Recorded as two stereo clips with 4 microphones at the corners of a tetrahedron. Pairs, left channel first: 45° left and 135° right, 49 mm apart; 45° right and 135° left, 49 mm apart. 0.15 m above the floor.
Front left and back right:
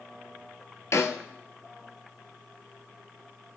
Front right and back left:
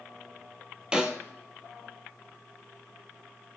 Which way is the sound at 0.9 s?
65° left.